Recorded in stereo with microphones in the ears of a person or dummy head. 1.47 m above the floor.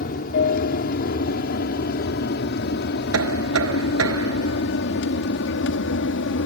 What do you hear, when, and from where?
0.0 s an aircraft: 50° left (ahead or behind); by 6.5 s 65° left (ahead or behind)
3.1 s knocking: 75° right (ahead or behind)